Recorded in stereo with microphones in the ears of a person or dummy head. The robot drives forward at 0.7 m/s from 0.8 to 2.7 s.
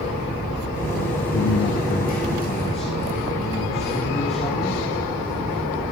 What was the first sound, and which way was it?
A man speaking, 70° left (ahead or behind).